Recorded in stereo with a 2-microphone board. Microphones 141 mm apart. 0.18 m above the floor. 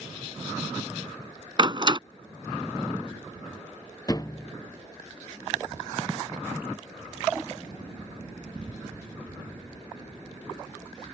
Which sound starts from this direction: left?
A thud, at 4.1 s.